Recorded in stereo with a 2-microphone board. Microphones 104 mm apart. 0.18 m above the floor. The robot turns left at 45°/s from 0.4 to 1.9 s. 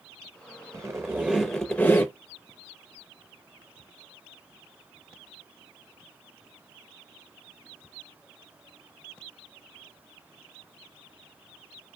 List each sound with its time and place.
0.7 s a squeak: 145° right, 0.8 m; by 2.1 s 165° left, 0.8 m